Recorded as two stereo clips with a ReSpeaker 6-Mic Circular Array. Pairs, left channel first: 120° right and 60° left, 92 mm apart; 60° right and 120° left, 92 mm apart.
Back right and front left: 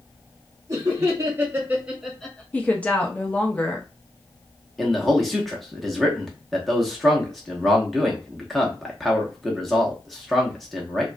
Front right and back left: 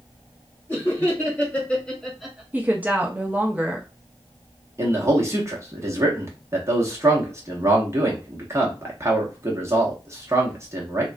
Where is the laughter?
10° left, 1.7 m; by 2.4 s 170° right, 0.8 m.